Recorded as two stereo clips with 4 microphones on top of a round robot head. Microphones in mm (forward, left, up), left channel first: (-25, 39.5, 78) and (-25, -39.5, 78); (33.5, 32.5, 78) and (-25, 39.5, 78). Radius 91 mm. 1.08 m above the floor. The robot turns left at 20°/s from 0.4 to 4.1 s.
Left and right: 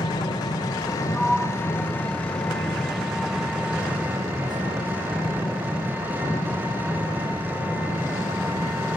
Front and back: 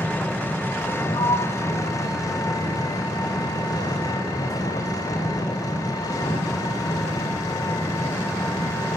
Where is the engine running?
55° left, 5 m; by 9.0 s 20° right, 5 m.